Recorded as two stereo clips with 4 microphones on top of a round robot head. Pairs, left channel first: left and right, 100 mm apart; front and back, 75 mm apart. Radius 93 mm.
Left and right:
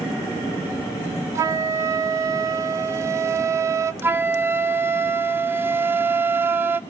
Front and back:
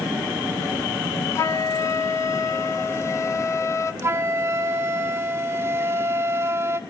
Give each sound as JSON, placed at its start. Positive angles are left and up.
{"t": 1.4, "sound": "a flute", "azimuth_deg": -35, "distance_m": 0.8}
{"t": 4.0, "sound": "a flute", "azimuth_deg": -145, "distance_m": 0.7}